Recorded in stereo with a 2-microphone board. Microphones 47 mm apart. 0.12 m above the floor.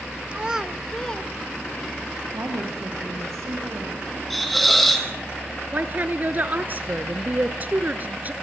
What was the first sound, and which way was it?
A child speaking, 25° right (ahead or behind).